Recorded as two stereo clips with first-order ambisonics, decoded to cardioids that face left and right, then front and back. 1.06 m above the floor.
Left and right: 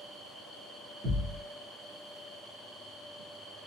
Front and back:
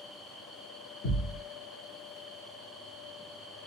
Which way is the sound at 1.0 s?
50° right.